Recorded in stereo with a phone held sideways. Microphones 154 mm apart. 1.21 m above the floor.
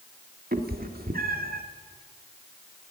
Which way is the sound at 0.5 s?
75° right (ahead or behind).